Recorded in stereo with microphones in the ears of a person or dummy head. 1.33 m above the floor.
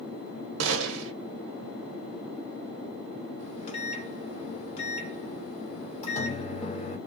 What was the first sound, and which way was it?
A gunshot, 85° right.